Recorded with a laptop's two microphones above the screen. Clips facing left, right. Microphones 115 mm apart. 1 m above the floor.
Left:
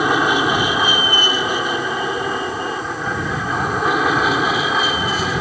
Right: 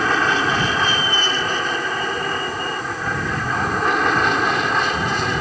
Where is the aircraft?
10° left (ahead or behind); by 5.4 s centre (ahead or behind).